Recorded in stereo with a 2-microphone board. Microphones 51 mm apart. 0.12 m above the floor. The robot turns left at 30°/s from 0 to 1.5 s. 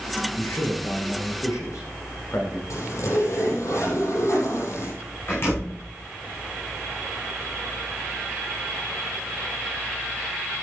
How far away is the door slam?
About 8 m.